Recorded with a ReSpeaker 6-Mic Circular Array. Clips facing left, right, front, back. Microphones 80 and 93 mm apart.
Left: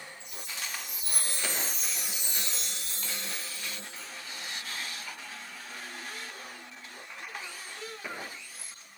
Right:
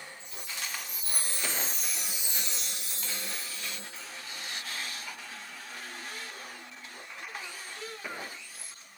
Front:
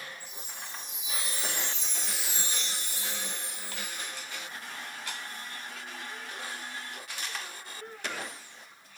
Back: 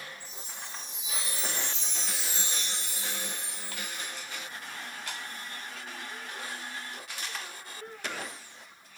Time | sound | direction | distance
0.2 | a chime | 120° left | 7.5 m